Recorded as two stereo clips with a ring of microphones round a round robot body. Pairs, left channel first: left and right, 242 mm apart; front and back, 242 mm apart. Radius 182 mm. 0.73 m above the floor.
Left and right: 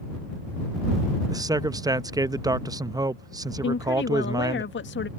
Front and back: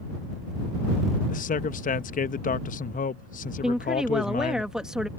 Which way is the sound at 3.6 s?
95° left.